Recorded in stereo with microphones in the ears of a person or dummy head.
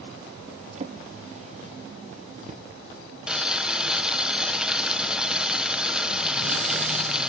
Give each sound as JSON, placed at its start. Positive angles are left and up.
{"t": 0.8, "sound": "a drawer", "side_deg": -40, "distance_m": 1.2}
{"t": 3.3, "sound": "boiling", "side_deg": 0, "distance_m": 1.0}